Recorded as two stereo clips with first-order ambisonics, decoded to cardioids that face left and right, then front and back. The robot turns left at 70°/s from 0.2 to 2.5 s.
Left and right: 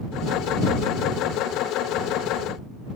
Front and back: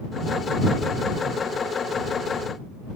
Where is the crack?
No crack in this recording.